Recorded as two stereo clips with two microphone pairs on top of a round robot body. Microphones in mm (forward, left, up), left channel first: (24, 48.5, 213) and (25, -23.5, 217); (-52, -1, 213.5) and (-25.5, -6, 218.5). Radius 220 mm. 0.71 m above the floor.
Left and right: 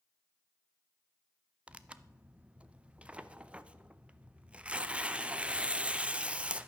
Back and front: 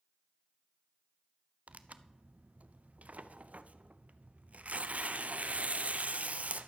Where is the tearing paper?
15° right, 0.7 m.